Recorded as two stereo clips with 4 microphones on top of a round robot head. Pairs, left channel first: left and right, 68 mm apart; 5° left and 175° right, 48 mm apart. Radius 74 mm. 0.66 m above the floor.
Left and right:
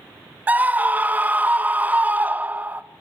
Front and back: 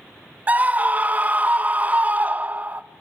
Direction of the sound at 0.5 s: 140° right.